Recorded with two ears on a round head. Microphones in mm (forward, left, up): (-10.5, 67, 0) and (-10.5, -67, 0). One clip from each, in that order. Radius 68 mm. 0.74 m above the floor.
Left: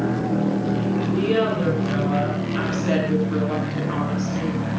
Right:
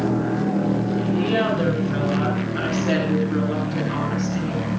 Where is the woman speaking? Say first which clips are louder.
Even; 10° left (ahead or behind), 8 m; by 4.6 s 15° left (ahead or behind), 6.5 m.